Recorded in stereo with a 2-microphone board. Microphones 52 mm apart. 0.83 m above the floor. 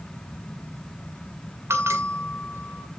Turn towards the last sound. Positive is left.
turn(degrees=-60)  # may be behind; listen again after turning